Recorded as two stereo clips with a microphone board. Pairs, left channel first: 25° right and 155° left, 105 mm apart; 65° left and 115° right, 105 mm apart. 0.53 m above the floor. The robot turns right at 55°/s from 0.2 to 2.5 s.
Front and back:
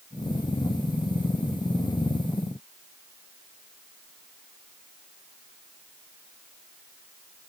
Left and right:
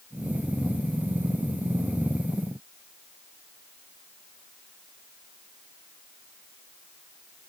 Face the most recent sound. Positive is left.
No sound to turn to.